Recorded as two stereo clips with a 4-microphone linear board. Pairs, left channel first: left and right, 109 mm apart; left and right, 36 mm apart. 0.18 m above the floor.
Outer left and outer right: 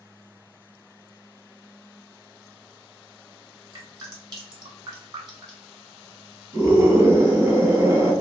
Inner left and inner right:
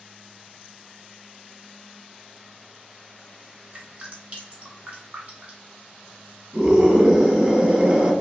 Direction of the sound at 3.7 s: 40° right (ahead or behind).